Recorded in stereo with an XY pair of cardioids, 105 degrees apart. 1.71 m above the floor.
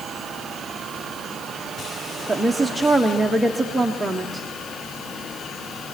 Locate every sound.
2.3 s a woman speaking: 5° right, 1.2 m